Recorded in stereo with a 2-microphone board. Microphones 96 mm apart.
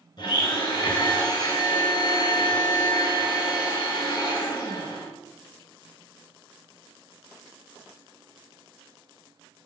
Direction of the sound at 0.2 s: 50° left (ahead or behind).